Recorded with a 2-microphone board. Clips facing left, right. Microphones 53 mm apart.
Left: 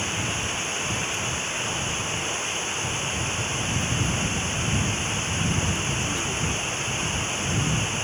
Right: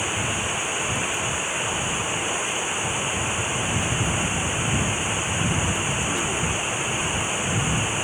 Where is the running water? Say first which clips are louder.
Right 2 dB; 15° right (ahead or behind).